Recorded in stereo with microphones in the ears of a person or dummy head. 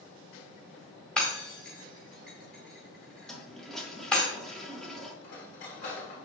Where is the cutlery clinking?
60° left (ahead or behind), 2.5 m.